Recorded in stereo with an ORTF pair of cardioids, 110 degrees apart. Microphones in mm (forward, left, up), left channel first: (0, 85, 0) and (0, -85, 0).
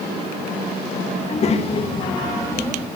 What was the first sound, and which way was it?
A child speaking, 45° left.